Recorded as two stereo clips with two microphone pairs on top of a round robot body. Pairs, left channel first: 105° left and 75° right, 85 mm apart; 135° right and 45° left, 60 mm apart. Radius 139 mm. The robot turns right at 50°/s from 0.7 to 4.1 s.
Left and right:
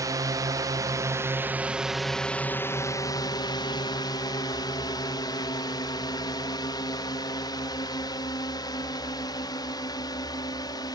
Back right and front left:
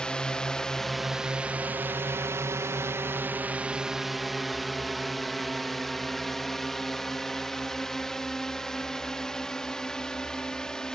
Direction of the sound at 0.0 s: 65° right.